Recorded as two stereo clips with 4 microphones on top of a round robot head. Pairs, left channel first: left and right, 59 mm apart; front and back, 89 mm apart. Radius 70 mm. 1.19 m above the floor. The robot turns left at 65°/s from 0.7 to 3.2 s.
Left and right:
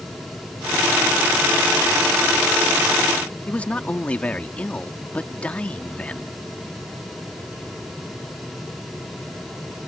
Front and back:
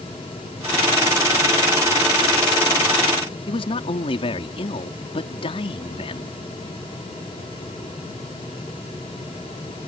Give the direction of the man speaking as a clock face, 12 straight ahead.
11 o'clock.